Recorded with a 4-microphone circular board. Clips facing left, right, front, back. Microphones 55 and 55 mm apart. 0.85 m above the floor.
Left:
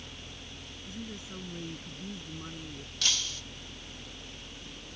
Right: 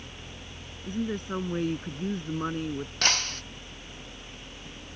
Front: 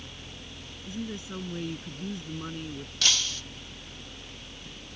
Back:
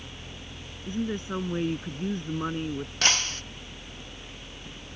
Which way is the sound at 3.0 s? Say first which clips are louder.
Right 5 dB, back 2 dB; 130° right.